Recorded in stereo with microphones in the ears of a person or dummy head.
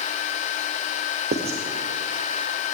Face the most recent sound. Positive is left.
turn(degrees=-35)  # may be behind; listen again after turning